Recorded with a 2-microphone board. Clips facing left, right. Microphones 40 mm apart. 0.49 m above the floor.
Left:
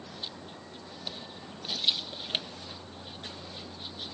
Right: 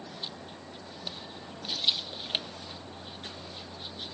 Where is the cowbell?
No cowbell in this recording.